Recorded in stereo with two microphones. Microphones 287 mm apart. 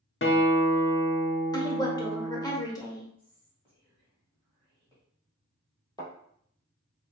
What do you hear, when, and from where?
0.2 s a guitar: 45° left (ahead or behind), 0.7 m
1.5 s a woman speaking: 15° left (ahead or behind), 1.0 m
3.2 s whispering: 20° right (ahead or behind), 2.0 m
6.0 s a thud: 15° left (ahead or behind), 2.5 m